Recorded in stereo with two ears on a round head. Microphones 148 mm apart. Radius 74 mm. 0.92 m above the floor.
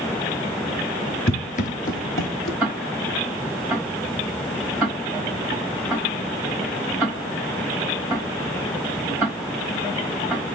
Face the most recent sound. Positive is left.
turn(degrees=-5)  # may be behind; listen again after turning